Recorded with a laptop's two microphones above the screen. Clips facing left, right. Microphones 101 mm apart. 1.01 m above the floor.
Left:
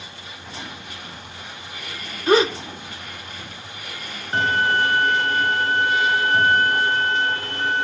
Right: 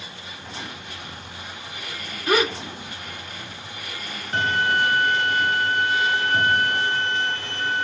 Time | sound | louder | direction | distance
2.3 | a gasp | left 5 dB | 30° left (ahead or behind) | 0.9 m
4.3 | a violin | left 2 dB | 40° left (ahead or behind) | 0.7 m